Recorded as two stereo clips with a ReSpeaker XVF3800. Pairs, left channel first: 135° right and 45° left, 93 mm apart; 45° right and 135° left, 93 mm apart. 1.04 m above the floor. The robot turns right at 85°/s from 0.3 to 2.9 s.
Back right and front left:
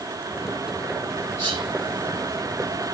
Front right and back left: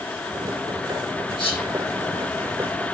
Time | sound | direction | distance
1.4 | whispering | 75° right | 6 m